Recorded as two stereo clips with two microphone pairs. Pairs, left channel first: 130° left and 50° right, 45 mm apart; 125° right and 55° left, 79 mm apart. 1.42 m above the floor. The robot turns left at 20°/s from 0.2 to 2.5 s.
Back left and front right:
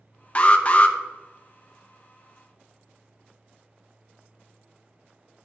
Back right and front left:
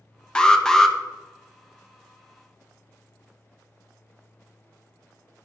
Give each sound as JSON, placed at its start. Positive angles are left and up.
{"t": 0.3, "sound": "an alarm", "azimuth_deg": 165, "distance_m": 0.6}